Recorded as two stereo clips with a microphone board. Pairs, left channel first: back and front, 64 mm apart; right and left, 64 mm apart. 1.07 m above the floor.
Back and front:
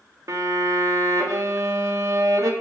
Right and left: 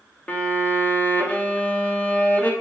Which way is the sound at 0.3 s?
25° right.